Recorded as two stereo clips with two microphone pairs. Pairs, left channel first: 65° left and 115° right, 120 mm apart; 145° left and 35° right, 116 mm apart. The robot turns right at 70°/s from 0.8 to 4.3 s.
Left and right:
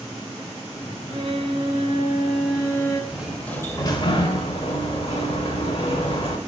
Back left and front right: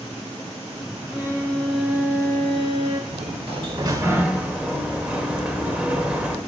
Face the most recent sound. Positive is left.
turn(degrees=40)